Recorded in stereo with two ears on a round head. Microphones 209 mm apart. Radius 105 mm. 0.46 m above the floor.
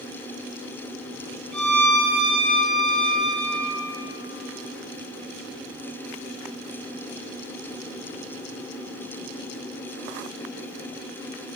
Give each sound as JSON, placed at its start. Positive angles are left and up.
{"t": 1.5, "sound": "a violin", "side_deg": 5, "distance_m": 4.5}